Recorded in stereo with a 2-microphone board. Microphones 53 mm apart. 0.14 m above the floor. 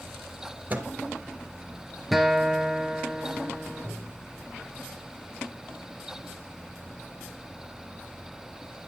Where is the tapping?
5° right (ahead or behind), 4.5 m.